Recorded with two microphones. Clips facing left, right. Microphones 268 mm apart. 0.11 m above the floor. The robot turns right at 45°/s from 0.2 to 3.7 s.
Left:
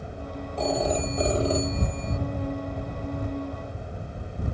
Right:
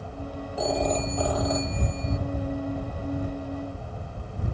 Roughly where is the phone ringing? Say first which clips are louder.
Even; ahead.